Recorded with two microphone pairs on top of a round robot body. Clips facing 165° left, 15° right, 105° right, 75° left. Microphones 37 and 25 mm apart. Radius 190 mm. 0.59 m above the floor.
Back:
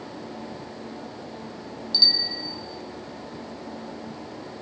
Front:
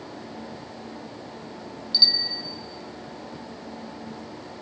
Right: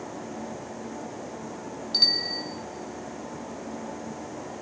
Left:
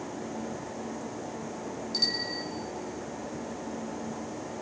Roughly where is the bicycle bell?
Right.